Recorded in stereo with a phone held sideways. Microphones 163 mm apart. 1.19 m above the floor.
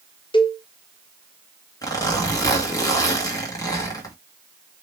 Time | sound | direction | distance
0.3 | a cowbell | 30° left (ahead or behind) | 0.7 m
1.8 | a zipper | 20° left (ahead or behind) | 1.7 m